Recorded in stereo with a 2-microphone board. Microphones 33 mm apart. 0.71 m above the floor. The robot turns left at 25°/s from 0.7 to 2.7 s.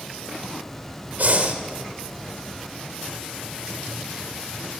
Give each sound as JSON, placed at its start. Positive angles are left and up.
{"t": 1.2, "sound": "breathing", "side_deg": -60, "distance_m": 1.4}